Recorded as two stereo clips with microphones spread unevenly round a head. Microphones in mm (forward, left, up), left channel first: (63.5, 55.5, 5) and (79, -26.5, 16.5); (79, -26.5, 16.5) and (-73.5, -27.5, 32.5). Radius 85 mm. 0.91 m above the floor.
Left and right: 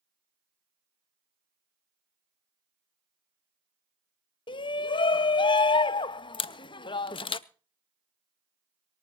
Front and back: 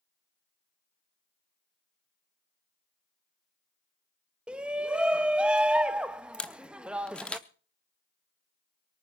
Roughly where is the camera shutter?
Left.